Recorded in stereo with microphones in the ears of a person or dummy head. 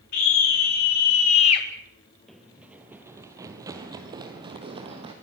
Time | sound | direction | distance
0.1 | a scream | 60° left (ahead or behind) | 3.5 m
2.3 | running footsteps | centre (ahead or behind) | 1.7 m